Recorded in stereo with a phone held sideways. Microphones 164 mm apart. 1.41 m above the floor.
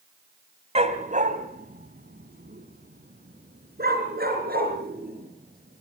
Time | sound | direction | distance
0.8 | a dog barking | 40° right (ahead or behind) | 2 m